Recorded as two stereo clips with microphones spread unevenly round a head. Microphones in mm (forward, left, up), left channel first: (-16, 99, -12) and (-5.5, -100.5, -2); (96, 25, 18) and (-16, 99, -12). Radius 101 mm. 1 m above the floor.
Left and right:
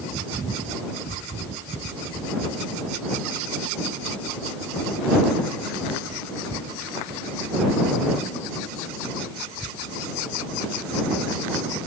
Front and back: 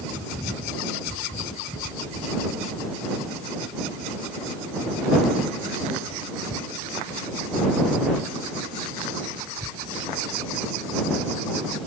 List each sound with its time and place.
Only background noise.